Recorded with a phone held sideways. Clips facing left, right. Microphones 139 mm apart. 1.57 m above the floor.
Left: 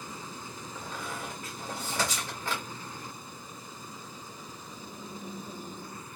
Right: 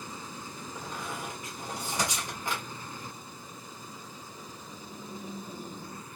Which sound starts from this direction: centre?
A squeak, at 0.8 s.